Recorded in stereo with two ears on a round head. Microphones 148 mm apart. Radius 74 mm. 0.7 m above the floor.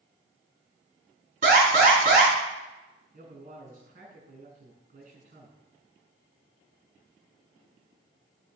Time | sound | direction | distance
1.4 | an alarm | 50° right (ahead or behind) | 4.5 m
3.1 | a man speaking | 50° right (ahead or behind) | 6 m